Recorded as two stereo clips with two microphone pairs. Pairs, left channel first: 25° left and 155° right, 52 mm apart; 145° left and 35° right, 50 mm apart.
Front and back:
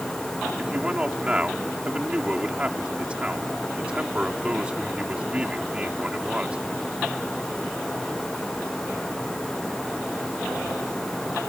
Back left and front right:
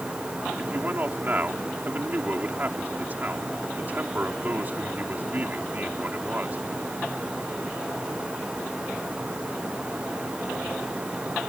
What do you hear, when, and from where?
0.6 s a man speaking: 85° right